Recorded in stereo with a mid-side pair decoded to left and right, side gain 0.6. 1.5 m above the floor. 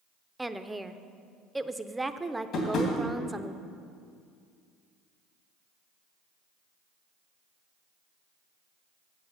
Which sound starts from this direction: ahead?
A woman speaking, at 0.4 s.